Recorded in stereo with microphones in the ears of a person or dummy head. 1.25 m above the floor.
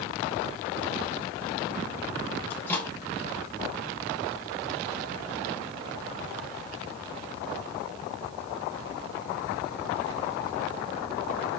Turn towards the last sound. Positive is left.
turn(degrees=15)  # may be behind; listen again after turning